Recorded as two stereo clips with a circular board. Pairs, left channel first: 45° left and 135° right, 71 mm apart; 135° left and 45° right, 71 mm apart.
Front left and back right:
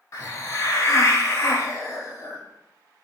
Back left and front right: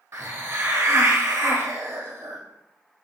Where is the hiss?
Straight ahead, 0.8 m.